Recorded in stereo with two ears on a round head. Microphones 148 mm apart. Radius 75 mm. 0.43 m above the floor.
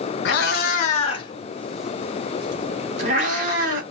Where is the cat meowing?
60° left (ahead or behind), 0.9 m; by 3.8 s 50° right (ahead or behind), 1.4 m.